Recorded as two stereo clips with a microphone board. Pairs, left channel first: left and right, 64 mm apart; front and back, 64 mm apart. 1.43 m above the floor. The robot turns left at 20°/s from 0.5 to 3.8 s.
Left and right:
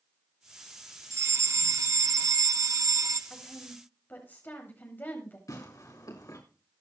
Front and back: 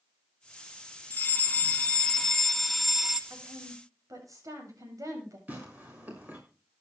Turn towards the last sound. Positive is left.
turn(degrees=115)